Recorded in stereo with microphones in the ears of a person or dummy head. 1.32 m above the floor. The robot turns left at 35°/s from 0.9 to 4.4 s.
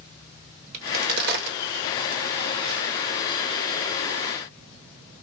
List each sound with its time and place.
0.7 s a crack: 45° right (ahead or behind), 1.2 m; by 2.9 s 65° right (ahead or behind), 1.2 m